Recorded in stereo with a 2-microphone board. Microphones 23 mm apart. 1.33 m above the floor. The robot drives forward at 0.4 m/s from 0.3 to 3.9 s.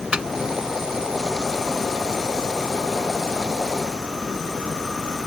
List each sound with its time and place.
0.1 s a microwave: 40° right (ahead or behind)